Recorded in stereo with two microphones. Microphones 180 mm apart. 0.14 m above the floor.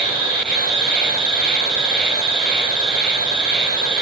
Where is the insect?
55° left (ahead or behind), 0.9 m.